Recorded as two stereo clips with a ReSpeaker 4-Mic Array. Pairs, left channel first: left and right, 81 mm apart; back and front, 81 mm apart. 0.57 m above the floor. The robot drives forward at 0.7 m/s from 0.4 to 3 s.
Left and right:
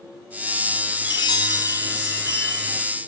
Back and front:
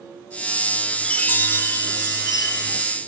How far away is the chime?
About 0.9 m.